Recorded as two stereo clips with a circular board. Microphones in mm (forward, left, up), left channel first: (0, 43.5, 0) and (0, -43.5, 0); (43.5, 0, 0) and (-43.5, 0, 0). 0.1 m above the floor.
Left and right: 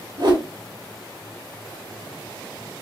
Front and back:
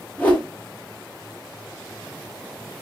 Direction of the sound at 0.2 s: 70° right.